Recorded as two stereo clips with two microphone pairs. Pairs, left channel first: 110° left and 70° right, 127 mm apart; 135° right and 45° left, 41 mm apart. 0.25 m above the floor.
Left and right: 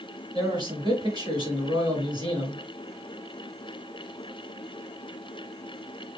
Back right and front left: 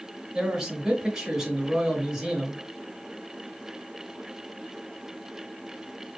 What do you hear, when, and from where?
0.3 s a man speaking: 30° right, 2 m